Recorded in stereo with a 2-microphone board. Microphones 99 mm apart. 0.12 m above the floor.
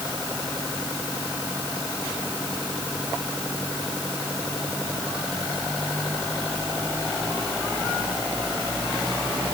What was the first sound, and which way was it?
Only background noise.